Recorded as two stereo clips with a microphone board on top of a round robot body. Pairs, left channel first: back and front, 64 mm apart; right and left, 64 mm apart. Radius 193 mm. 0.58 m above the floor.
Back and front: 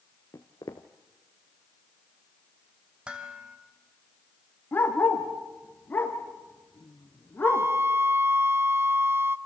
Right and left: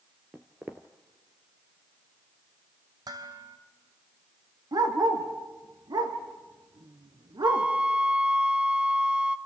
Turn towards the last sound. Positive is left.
turn(degrees=25)